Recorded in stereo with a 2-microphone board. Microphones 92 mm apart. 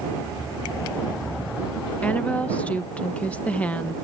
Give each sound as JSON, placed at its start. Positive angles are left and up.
{"t": 2.0, "sound": "a woman speaking", "side_deg": 15}